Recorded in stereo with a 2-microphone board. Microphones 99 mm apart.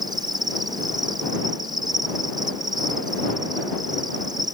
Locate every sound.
0.0 s an insect: 45° right (ahead or behind)